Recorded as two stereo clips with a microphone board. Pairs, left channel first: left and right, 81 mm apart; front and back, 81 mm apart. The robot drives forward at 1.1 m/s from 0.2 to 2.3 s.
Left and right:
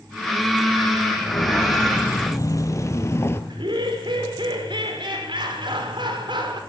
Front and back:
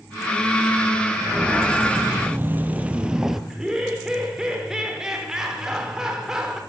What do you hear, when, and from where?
1.2 s footsteps: 110° left, 3 m; by 3.4 s 95° left, 1.8 m
3.5 s laughter: 100° right, 5.5 m